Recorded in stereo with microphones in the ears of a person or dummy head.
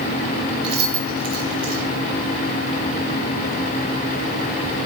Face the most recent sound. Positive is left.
turn(degrees=-25)  # may be behind; listen again after turning